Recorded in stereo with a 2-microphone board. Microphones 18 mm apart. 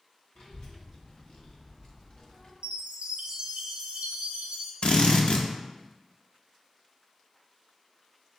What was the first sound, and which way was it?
A child speaking, 55° left (ahead or behind).